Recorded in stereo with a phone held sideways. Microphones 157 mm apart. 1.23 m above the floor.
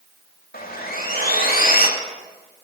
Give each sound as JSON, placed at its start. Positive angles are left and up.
{"t": 0.5, "sound": "sawing", "side_deg": 70, "distance_m": 2.5}